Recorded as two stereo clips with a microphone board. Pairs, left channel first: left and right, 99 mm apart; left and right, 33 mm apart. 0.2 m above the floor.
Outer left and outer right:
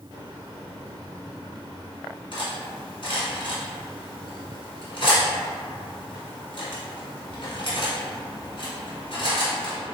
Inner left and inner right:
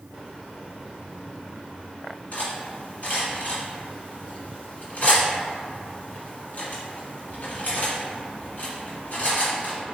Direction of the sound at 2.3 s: 60° left (ahead or behind).